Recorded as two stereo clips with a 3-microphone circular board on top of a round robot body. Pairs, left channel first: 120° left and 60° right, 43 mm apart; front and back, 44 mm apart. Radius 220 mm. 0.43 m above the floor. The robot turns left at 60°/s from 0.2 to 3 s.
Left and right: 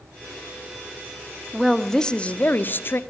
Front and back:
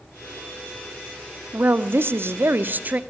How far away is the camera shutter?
I don't hear a camera shutter.